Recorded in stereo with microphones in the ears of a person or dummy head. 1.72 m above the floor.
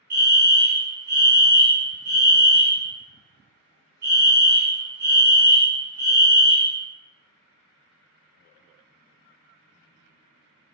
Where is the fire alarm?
55° right (ahead or behind), 1.2 m.